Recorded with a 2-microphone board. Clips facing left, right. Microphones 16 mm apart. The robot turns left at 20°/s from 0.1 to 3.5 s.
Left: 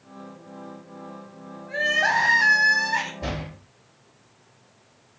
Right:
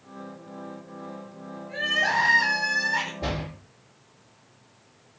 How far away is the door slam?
About 2 m.